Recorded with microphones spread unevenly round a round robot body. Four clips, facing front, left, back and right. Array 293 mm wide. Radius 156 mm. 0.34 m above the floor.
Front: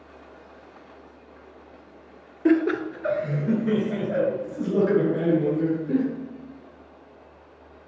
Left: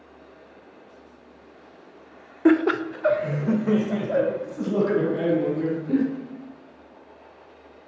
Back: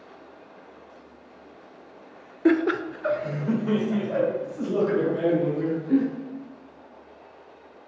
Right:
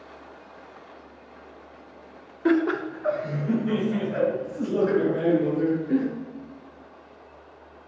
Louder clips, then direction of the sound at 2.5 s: Left 3 dB, front 1 dB; 110° left.